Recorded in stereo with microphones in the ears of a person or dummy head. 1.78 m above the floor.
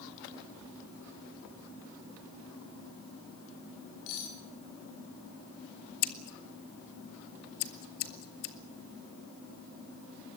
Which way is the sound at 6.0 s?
55° left (ahead or behind).